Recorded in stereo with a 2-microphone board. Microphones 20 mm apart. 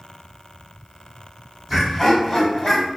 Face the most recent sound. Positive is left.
turn(degrees=10)  # may be behind; listen again after turning